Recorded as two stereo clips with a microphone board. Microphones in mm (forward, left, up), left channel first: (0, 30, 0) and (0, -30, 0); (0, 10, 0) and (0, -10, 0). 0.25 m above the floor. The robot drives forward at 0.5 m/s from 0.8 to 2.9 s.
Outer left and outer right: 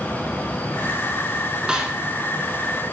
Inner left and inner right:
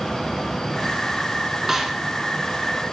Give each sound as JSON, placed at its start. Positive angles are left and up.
{"t": 1.7, "sound": "a snare drum", "side_deg": -15, "distance_m": 1.8}